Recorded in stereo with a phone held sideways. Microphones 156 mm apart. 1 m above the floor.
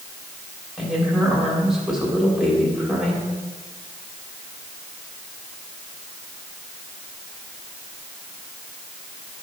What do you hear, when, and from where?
0.8 s a woman speaking: centre (ahead or behind), 3.5 m